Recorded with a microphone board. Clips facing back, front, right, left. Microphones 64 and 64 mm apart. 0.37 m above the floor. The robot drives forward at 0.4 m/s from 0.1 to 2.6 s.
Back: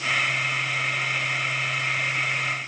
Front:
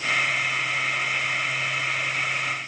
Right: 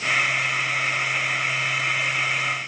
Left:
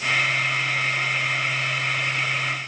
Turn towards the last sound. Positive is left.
No sound to turn to.